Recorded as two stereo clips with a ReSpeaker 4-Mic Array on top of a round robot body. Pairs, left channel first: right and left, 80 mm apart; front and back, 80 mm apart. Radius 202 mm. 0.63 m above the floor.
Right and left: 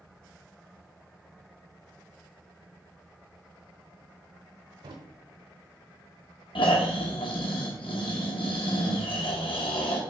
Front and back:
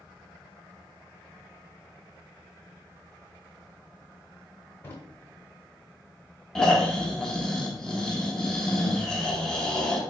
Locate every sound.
4.8 s a drawer: 65° left, 0.8 m
6.5 s snoring: 80° right, 1.2 m